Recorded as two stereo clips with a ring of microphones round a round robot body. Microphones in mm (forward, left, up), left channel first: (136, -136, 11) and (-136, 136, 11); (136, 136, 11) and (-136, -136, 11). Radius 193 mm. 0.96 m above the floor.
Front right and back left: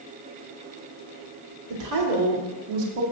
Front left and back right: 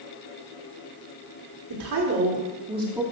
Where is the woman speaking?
Straight behind, 3 m; by 3.0 s 140° left, 2 m.